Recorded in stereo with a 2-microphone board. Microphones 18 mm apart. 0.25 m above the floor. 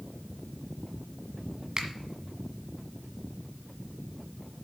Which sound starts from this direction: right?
A finger snap, at 1.8 s.